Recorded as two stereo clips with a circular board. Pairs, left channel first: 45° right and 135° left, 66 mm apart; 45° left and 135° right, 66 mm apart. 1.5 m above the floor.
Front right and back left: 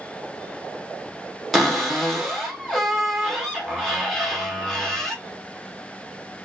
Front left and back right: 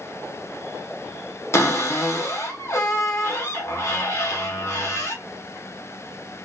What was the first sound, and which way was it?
A cupboard door, 45° left.